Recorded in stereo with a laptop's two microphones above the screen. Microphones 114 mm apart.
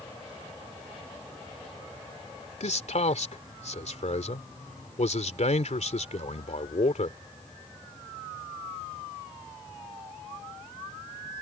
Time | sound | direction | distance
2.6 | a man speaking | 70° left (ahead or behind) | ?